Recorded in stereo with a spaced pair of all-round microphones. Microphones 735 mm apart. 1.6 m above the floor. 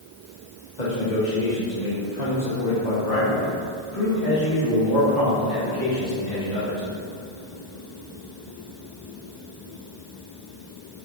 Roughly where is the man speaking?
Left.